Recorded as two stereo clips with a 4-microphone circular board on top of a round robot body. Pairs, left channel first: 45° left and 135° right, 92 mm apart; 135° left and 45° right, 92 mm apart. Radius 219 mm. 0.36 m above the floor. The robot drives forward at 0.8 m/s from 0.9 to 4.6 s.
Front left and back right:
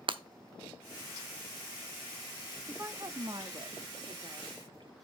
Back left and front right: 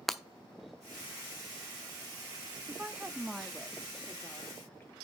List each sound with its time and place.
0.1 s breaking glass: 135° right, 0.8 m
2.7 s a woman speaking: 90° right, 1.1 m; by 4.9 s 160° right, 1.9 m